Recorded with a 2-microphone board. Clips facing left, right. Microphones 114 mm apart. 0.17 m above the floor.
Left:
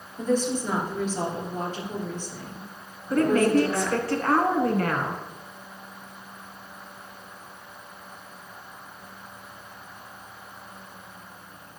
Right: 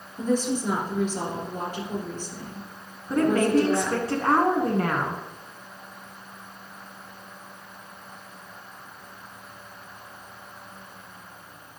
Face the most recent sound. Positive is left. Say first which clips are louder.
# left 1 dB
turn(degrees=-25)  # may be behind; listen again after turning